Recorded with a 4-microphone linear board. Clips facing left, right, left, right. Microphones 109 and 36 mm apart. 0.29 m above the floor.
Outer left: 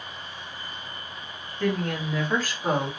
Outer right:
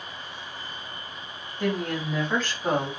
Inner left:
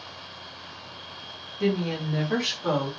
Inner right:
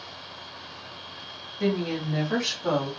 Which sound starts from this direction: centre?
A woman speaking, at 1.6 s.